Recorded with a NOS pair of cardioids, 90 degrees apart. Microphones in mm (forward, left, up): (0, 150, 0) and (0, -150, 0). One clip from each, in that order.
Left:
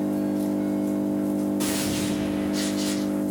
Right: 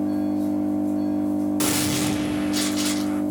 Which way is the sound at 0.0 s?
50° left.